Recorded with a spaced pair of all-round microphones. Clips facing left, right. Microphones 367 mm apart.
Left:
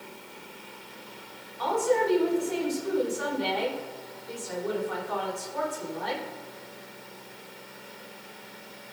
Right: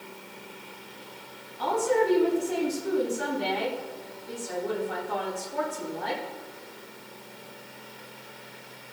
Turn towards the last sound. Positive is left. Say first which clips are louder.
# right 1 dB
turn(degrees=-40)  # may be behind; listen again after turning